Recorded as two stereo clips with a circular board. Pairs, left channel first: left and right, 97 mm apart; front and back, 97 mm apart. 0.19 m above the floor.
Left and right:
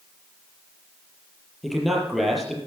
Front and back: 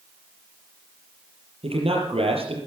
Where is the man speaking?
Straight behind, 5 m.